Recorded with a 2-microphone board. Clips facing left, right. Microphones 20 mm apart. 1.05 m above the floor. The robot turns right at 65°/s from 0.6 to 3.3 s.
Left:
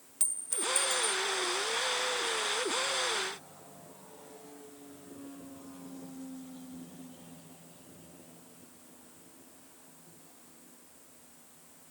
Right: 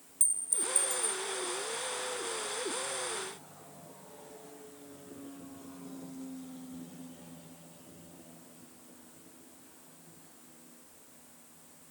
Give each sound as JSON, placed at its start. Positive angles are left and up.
{"t": 0.2, "sound": "a clink", "azimuth_deg": 135}